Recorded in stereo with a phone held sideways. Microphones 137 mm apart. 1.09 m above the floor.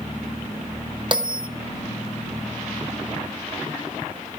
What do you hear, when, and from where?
1.1 s a bell: 35° right (ahead or behind), 0.7 m